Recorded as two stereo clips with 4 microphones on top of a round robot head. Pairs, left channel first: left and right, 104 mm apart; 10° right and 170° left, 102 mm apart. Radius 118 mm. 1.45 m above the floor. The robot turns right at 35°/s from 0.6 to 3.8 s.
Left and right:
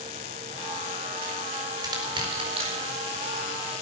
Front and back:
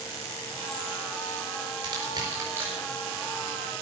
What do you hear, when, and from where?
1.8 s crushing: 145° right, 4 m; by 3.7 s 75° right, 4 m